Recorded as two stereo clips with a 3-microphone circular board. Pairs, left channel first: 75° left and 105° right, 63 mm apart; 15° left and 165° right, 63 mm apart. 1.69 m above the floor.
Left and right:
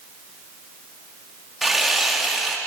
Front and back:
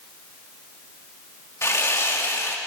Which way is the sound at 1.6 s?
15° right.